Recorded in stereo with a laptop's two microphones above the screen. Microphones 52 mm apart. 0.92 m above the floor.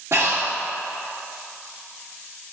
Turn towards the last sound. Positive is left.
turn(degrees=-60)  # may be behind; listen again after turning